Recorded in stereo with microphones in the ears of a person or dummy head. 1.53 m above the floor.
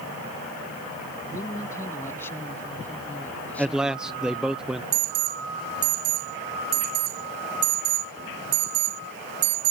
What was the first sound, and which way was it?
A man speaking, 15° left (ahead or behind).